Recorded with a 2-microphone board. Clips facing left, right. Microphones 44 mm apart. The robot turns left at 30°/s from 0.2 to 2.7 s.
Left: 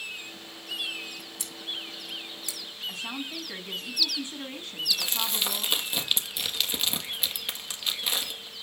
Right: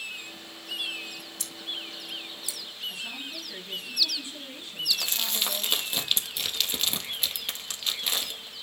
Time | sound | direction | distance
1.4 | scissors | 15° left (ahead or behind) | 5 m
2.9 | a woman speaking | 50° left (ahead or behind) | 4 m
4.9 | crumpling | centre (ahead or behind) | 1.7 m